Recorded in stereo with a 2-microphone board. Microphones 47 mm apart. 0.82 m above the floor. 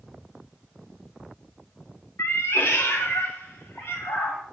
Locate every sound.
2.2 s a cat meowing: 65° left (ahead or behind), 0.6 m; by 4.4 s 70° left (ahead or behind), 2.5 m